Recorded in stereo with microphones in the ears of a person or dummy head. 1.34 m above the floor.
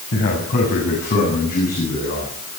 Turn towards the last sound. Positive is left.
turn(degrees=50)  # may be behind; listen again after turning